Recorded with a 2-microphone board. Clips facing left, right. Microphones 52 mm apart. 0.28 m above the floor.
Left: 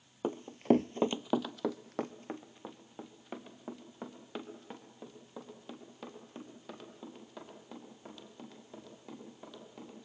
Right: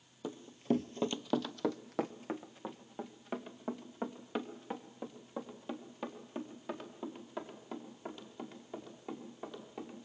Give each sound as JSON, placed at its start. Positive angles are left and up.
{"t": 0.2, "sound": "running footsteps", "side_deg": 45, "distance_m": 0.5}